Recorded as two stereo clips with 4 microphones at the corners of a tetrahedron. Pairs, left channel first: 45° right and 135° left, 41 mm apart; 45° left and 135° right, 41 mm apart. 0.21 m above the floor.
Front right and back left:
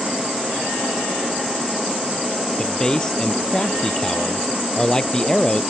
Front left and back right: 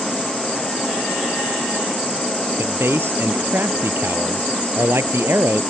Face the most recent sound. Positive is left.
turn(degrees=-120)